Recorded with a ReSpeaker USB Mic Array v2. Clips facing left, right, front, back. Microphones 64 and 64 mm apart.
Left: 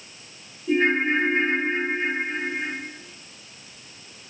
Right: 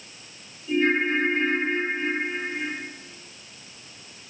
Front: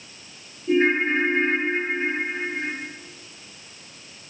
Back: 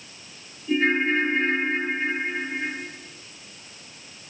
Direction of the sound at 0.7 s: 55° left.